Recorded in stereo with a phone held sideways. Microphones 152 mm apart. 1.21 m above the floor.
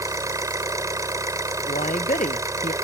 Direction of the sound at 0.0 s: 20° right (ahead or behind).